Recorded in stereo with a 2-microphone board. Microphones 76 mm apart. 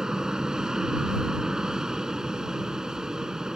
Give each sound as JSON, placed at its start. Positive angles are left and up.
{"t": 0.0, "sound": "an aircraft", "side_deg": -10}